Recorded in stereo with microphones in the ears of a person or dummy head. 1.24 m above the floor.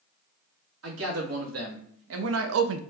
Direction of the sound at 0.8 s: 80° right.